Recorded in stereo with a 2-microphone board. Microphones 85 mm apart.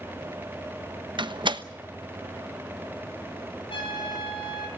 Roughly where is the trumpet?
Left.